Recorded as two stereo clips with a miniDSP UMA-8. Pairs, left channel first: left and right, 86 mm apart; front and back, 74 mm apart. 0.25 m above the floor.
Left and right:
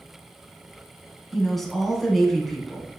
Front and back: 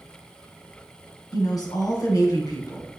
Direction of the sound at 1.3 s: 5° left.